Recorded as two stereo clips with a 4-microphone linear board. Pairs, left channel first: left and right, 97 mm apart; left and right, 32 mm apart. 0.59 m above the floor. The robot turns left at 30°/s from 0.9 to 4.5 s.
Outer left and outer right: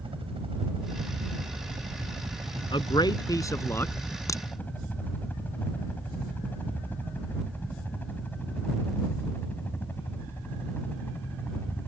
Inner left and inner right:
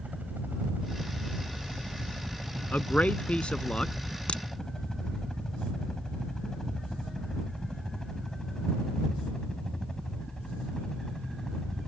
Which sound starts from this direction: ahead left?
A man speaking, at 2.7 s.